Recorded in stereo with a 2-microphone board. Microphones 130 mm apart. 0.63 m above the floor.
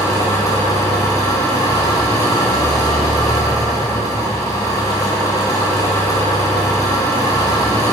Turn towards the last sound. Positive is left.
turn(degrees=25)  # may be behind; listen again after turning